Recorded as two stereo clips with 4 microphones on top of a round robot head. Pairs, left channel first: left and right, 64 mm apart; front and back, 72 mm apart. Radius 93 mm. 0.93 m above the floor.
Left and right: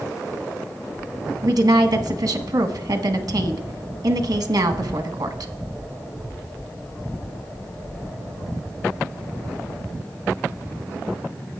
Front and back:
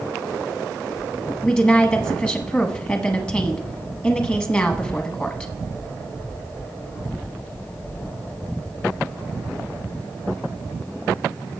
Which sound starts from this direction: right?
A woman speaking, at 1.4 s.